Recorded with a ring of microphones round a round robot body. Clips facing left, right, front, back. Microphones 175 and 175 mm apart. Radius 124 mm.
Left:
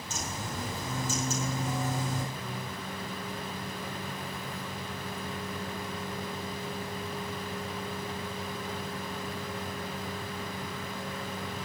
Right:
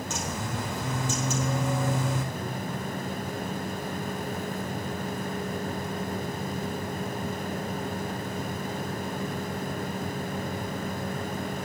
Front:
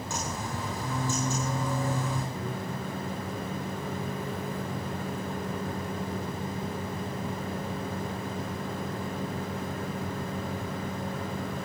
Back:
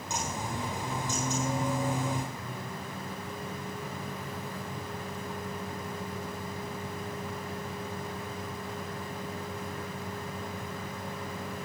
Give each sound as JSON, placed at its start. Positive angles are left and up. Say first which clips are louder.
{"t": 0.1, "sound": "a bird", "louder": "right 1 dB, back 1 dB", "azimuth_deg": -105, "distance_m": 4.0}
{"t": 2.4, "sound": "a microwave", "louder": "right 6 dB, front 5 dB", "azimuth_deg": -50, "distance_m": 2.5}